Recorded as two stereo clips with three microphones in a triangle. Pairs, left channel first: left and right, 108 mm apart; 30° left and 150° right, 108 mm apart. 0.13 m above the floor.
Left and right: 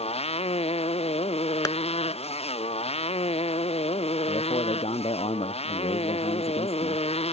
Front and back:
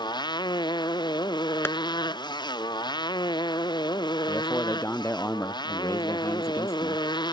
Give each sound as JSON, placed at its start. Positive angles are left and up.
{"t": 0.0, "sound": "a motorcycle", "azimuth_deg": 75}
{"t": 1.6, "sound": "tapping", "azimuth_deg": 80}
{"t": 4.3, "sound": "a man speaking", "azimuth_deg": 95}